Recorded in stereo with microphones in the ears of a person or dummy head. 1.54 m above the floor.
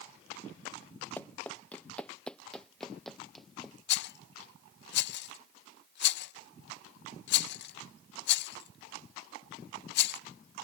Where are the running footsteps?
10° left (ahead or behind); by 3.7 s centre (ahead or behind).